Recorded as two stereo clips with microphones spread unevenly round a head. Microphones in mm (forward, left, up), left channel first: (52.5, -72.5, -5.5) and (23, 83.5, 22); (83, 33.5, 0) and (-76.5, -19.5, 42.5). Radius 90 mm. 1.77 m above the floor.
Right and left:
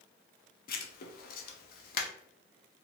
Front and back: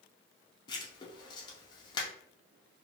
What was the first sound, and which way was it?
Writing, 55° right.